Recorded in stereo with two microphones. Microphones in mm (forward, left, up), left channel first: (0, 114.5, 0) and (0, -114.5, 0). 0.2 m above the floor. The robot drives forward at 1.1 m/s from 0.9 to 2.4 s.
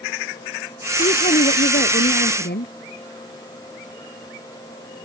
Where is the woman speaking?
35° left (ahead or behind); by 2.7 s 50° left (ahead or behind).